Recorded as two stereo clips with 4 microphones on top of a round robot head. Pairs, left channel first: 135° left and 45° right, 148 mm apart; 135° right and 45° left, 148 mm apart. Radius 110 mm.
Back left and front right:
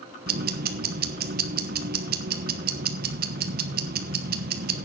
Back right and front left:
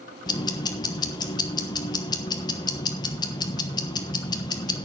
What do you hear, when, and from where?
0.3 s ticking: 70° right, 1.2 m